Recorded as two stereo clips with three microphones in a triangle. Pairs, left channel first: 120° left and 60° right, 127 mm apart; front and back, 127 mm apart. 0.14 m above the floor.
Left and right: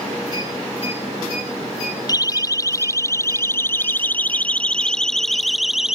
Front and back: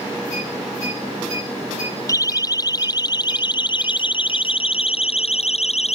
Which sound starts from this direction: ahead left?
A siren, at 2.1 s.